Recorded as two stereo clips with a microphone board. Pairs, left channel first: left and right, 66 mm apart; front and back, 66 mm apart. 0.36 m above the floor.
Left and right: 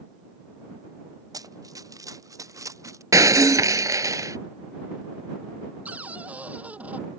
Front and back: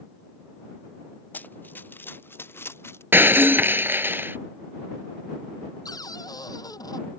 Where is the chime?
No chime in this recording.